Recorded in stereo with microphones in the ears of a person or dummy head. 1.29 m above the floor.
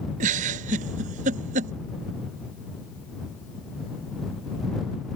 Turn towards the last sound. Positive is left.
turn(degrees=-45)  # may be behind; listen again after turning